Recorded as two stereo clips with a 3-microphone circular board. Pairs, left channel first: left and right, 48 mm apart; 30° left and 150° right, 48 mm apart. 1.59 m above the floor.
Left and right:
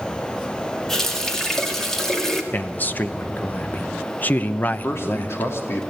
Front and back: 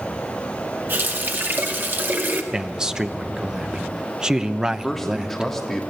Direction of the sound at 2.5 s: 140° left.